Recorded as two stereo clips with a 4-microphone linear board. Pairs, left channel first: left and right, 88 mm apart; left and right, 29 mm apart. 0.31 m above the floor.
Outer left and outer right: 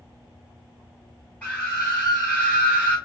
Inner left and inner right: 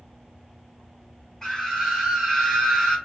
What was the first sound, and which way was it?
A scream, 20° left (ahead or behind).